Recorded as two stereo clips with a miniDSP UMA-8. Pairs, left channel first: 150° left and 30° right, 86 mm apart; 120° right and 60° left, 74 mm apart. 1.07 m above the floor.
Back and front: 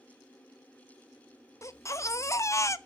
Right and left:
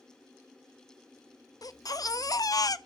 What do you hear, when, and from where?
1.6 s a baby crying: 155° right, 0.8 m